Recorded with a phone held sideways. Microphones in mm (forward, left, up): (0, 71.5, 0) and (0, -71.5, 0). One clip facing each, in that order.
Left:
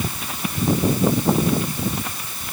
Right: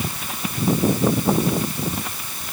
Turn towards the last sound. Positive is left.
No sound to turn to.